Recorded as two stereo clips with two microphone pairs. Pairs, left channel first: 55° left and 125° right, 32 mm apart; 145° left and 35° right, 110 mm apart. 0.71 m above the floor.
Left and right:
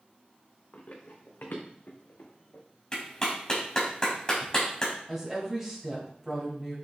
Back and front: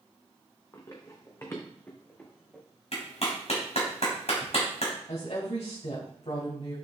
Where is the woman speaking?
165° left, 4 m.